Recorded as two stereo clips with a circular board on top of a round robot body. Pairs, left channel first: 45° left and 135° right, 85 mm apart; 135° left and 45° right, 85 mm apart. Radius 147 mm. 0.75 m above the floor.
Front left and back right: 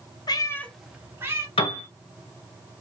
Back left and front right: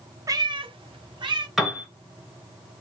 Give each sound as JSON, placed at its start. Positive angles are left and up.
{"t": 0.3, "sound": "a cat meowing", "azimuth_deg": 5, "distance_m": 0.8}
{"t": 1.6, "sound": "a piano", "azimuth_deg": 45, "distance_m": 1.2}